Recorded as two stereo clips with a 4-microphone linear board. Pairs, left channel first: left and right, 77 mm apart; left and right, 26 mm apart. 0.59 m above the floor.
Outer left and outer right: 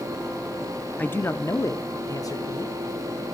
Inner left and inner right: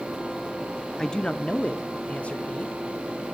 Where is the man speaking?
20° left (ahead or behind), 0.6 m; by 3.3 s 55° left (ahead or behind), 2 m.